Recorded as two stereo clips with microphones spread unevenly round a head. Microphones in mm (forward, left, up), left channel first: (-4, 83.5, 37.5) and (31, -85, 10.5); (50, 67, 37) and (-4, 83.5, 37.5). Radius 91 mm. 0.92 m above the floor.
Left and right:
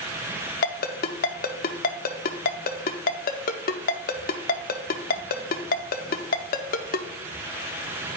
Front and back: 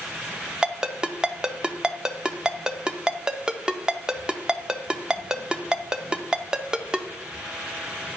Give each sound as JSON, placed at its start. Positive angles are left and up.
{"t": 0.6, "sound": "a ringtone", "azimuth_deg": 85, "distance_m": 0.5}